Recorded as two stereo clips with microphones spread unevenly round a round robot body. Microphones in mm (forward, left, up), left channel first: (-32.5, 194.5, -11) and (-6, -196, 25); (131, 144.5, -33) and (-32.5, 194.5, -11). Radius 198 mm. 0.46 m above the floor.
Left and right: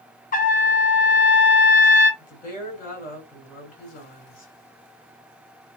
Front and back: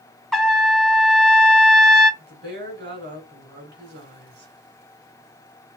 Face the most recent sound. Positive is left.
turn(degrees=160)